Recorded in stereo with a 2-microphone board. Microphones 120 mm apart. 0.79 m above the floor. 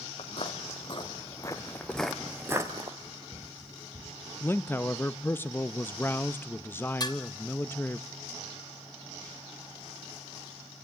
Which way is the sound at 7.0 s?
35° left (ahead or behind).